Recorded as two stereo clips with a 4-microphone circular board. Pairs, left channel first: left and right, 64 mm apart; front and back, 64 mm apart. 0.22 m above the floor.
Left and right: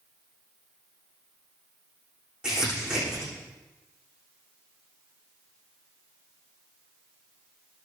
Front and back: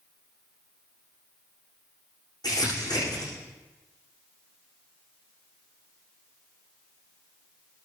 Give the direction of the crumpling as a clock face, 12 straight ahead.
12 o'clock.